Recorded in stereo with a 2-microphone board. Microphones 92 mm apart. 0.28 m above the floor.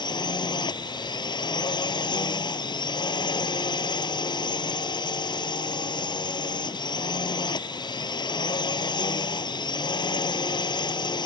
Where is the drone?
55° left (ahead or behind).